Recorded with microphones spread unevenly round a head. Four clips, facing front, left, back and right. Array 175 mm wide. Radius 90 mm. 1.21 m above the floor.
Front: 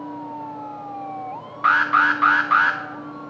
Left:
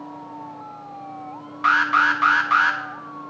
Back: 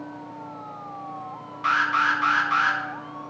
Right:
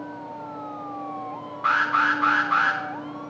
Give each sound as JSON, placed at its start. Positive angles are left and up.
{"t": 1.6, "sound": "an alarm", "azimuth_deg": 55, "distance_m": 1.8}